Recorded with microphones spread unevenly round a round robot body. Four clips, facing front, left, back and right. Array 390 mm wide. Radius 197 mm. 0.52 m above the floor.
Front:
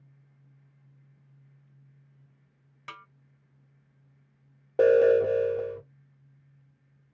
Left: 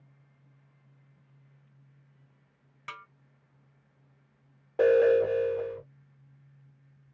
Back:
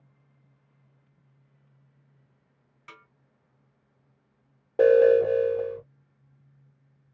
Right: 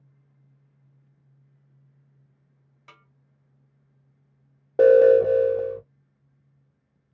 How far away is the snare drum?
About 2 m.